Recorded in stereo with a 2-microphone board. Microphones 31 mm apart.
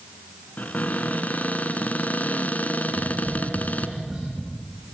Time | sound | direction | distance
0.6 | a cupboard door | 55° left (ahead or behind) | 2 m
2.9 | tapping | 5° right (ahead or behind) | 10 m